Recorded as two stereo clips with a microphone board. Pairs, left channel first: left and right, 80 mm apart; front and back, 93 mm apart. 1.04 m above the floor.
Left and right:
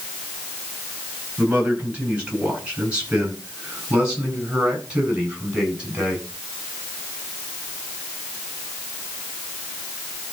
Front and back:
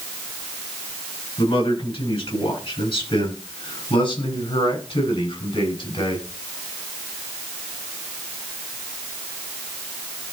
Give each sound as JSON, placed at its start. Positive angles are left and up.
{"t": 1.4, "sound": "a man speaking", "azimuth_deg": -15, "distance_m": 9.5}